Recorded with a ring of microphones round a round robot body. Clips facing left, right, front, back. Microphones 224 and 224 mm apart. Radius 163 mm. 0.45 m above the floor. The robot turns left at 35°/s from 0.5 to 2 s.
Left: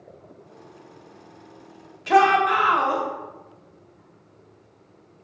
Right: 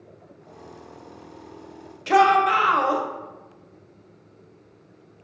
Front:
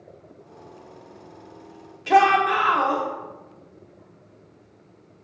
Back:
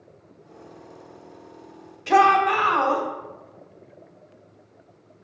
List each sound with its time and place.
2.1 s a shout: 85° right, 1.1 m